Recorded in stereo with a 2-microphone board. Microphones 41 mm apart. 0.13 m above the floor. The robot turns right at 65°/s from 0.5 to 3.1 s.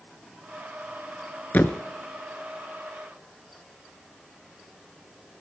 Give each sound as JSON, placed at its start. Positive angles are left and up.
{"t": 1.5, "sound": "a thud", "side_deg": 45, "distance_m": 0.7}